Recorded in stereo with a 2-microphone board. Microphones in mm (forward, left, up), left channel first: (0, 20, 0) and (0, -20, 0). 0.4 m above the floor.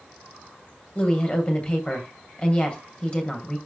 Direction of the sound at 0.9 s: 25° left (ahead or behind).